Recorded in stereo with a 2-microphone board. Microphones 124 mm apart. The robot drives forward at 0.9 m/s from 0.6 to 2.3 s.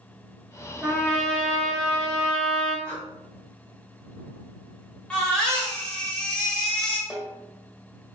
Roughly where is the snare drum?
Left.